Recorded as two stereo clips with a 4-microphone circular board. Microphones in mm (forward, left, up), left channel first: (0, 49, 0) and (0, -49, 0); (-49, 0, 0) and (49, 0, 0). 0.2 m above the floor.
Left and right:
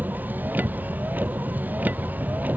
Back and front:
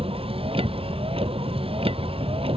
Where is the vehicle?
20° right; by 2.6 s 15° right.